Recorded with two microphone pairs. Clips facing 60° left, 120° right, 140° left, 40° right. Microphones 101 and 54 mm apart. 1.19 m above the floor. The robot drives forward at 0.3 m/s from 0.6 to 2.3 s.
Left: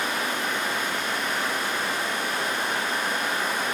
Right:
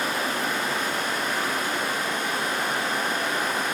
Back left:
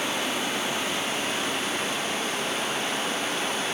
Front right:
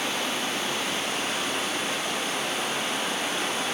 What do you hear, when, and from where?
0.0 s running water: 155° right, 0.8 m; by 3.7 s 170° right, 1.2 m